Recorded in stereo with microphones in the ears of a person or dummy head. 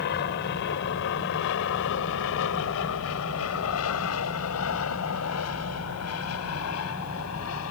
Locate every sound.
0.0 s an aircraft: 50° left (ahead or behind); by 7.7 s 80° left